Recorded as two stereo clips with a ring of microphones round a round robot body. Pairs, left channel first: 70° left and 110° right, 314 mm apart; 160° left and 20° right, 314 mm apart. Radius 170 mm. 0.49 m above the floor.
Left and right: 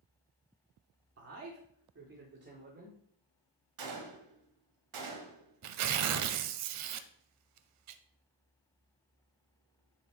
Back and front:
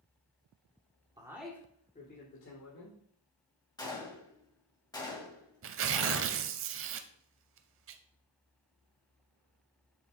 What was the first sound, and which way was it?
A man speaking, 95° right.